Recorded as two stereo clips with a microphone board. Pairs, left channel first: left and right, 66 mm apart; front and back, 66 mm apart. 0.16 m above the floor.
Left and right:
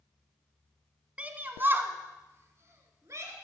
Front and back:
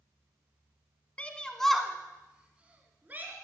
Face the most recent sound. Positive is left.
turn(degrees=-125)